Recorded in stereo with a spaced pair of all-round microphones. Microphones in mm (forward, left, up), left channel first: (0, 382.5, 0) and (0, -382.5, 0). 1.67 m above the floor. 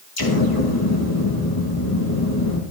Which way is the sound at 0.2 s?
30° left (ahead or behind).